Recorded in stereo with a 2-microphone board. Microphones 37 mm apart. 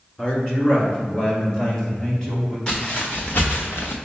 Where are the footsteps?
20° left (ahead or behind), 1.3 m; by 4.0 s 75° left (ahead or behind), 1.4 m.